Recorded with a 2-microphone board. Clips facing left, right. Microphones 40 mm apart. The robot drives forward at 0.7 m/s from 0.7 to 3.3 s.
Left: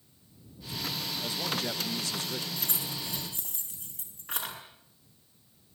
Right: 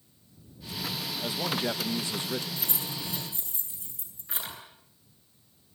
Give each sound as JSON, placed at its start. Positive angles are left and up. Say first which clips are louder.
{"t": 1.2, "sound": "a man speaking", "louder": "right 4 dB", "side_deg": -15, "distance_m": 1.2}
{"t": 2.6, "sound": "keys jangling", "louder": "right 1 dB", "side_deg": 55, "distance_m": 8.0}